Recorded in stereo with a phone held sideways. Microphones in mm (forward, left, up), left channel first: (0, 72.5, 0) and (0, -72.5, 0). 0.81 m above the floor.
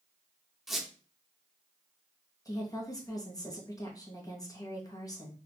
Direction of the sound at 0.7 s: Centre (ahead or behind).